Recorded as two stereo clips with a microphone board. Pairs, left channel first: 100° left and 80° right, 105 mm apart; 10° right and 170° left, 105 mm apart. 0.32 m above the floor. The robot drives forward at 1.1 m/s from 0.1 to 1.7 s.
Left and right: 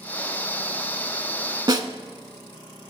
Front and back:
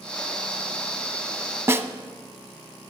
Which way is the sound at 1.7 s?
120° right.